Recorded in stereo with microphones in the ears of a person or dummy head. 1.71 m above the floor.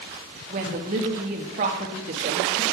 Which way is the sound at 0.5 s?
20° right (ahead or behind).